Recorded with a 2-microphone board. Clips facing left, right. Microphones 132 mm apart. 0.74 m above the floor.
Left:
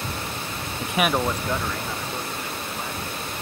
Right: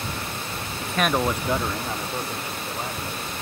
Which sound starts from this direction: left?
A man speaking, at 0.8 s.